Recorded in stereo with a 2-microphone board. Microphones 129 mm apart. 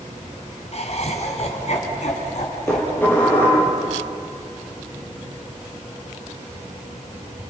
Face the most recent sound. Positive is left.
turn(degrees=15)  # may be behind; listen again after turning